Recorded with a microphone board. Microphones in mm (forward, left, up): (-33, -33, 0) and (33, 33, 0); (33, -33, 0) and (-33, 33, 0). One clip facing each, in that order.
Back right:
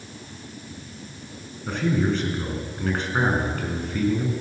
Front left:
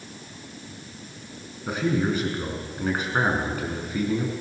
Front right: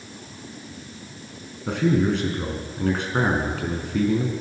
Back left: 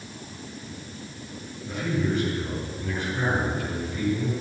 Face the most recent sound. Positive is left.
turn(degrees=-35)